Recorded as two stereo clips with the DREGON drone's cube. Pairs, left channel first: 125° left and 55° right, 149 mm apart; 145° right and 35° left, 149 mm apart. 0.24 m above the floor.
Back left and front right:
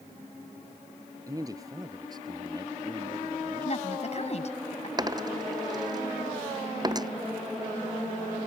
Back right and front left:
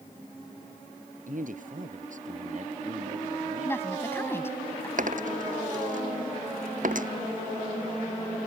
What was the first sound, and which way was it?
A man speaking, 10° left.